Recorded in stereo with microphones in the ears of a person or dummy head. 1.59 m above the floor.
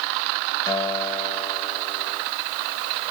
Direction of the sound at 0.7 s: 25° left (ahead or behind).